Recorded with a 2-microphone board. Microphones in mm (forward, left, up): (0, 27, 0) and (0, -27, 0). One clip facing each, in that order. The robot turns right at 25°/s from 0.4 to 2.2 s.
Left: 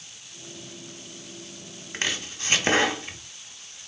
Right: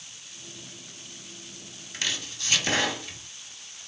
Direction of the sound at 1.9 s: 35° left (ahead or behind).